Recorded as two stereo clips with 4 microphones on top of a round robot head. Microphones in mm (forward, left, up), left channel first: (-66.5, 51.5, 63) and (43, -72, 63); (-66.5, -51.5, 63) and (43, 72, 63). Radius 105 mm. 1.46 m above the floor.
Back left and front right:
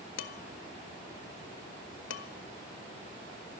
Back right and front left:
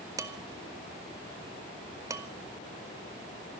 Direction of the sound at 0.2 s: 120° left.